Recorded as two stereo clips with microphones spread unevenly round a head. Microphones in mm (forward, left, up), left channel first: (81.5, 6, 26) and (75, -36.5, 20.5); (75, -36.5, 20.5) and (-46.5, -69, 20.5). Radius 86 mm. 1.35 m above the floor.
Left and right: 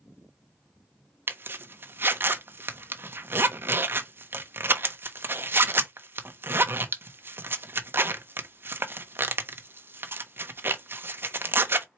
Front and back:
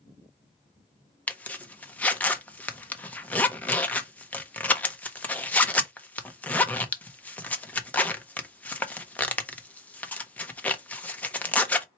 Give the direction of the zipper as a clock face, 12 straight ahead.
2 o'clock.